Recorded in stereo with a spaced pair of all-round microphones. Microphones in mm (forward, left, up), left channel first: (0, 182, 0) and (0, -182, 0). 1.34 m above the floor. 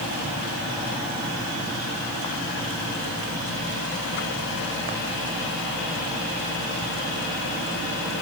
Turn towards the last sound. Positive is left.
No sound to turn to.